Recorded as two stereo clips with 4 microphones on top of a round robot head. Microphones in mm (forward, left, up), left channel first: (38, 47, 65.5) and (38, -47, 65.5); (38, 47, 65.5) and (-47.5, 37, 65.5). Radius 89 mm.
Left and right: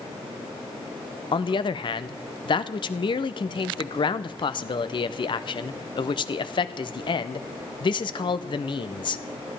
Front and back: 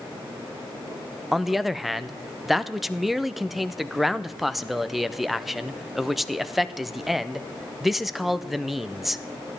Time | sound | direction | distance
1.3 | a man speaking | 100° left | 0.6 m